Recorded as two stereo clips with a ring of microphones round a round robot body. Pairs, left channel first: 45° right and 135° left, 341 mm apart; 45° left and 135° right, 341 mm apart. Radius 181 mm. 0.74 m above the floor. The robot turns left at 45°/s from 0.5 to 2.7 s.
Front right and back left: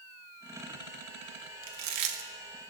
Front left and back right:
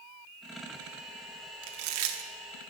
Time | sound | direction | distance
1.6 | chewing | 170° right | 0.7 m